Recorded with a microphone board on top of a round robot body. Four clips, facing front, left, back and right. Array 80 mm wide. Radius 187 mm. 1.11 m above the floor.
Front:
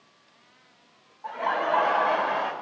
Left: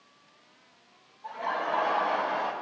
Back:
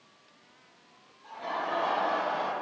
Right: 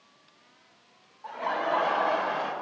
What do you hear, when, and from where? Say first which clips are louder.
1.2 s laughter: right 2 dB, front 7 dB; 20° right, 2 m; by 2.5 s 15° right, 3 m